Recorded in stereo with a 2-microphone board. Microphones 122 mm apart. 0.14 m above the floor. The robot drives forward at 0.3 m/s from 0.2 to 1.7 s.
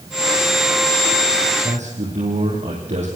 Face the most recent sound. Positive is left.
turn(degrees=-75)  # may be behind; listen again after turning